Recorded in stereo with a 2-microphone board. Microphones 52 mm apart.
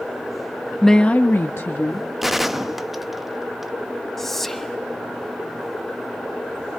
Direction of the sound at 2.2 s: 5° right (ahead or behind).